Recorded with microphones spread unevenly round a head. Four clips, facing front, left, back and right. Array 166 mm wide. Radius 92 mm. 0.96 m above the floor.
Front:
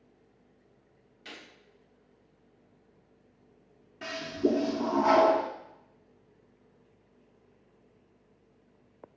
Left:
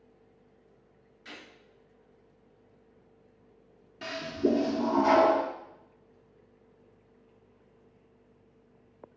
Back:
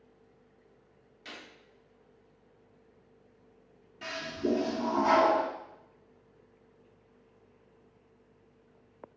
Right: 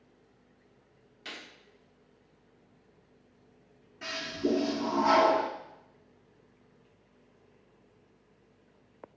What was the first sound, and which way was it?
A gunshot, 115° right.